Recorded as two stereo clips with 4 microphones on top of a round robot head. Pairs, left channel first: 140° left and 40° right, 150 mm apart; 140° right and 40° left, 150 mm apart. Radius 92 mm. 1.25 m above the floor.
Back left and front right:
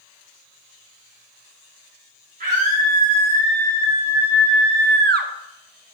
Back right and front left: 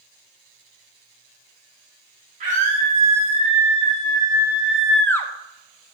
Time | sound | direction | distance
2.4 | a scream | straight ahead | 3 m